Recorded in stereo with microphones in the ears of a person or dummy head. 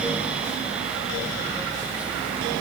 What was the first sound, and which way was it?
Only background noise.